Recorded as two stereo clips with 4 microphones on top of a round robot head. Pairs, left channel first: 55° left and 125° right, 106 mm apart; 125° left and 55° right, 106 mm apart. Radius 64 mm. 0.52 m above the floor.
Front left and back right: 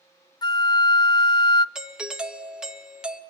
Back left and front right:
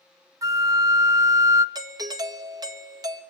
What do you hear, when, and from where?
0.4 s a flute: 5° left, 0.8 m
1.8 s a doorbell: 45° right, 1.9 m